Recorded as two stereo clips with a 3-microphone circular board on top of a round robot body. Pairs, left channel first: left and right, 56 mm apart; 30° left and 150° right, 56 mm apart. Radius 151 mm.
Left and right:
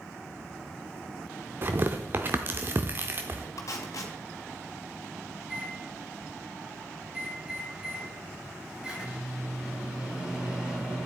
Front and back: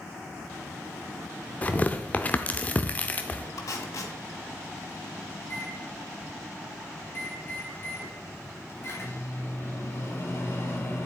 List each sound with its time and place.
1.6 s tearing paper: 35° right, 0.6 m
3.6 s tape being pulled: 55° left, 2.0 m
5.4 s a microwave: 15° right, 4 m